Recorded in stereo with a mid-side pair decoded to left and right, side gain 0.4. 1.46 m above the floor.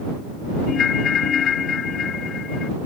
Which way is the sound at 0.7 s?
60° left.